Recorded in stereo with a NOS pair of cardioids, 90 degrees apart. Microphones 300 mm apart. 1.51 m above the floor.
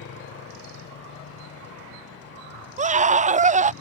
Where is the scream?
25° right.